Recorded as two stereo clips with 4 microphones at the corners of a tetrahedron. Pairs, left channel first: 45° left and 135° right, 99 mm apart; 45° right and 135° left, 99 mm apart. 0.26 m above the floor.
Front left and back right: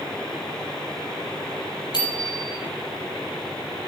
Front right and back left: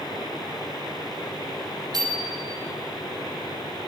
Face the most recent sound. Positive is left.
turn(degrees=85)